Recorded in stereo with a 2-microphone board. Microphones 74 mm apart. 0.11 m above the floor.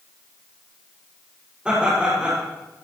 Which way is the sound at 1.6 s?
15° right (ahead or behind).